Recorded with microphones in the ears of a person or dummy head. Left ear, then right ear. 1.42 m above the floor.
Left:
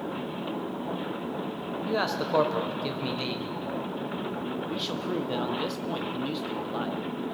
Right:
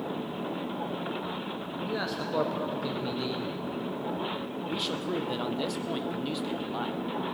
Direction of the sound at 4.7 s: 5° left (ahead or behind).